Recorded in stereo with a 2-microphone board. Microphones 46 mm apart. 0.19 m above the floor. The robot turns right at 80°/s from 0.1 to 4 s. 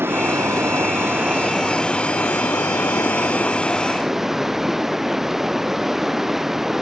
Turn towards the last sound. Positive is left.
turn(degrees=-175)